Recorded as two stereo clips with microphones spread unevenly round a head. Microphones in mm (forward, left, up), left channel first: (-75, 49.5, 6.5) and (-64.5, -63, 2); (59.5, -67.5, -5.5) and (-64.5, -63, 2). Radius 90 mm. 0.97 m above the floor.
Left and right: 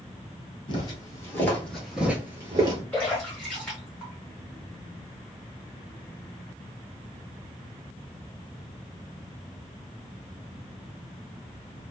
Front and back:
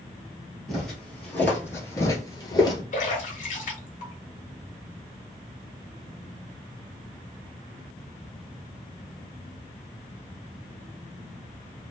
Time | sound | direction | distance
0.7 | footsteps | 90° left | 1.2 m
2.9 | a splash | 15° left | 1.1 m